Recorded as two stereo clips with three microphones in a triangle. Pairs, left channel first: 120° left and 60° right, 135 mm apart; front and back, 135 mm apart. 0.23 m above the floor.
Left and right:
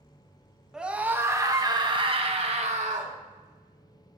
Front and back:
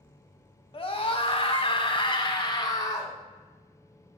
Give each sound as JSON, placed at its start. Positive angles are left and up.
{"t": 0.7, "sound": "a scream", "azimuth_deg": 20, "distance_m": 1.3}